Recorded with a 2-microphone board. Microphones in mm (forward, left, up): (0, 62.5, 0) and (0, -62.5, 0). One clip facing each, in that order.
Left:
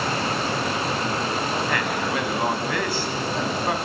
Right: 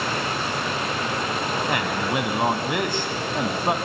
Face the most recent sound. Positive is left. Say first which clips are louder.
# even
turn(degrees=-20)  # may be behind; listen again after turning